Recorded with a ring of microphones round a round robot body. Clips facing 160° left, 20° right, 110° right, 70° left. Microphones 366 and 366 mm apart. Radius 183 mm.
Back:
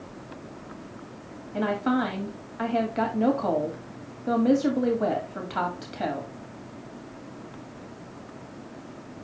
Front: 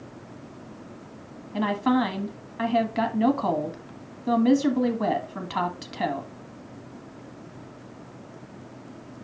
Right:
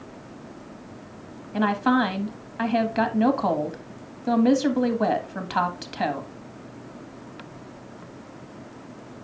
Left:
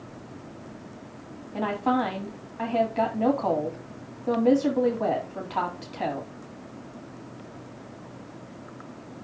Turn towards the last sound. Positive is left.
turn(degrees=-85)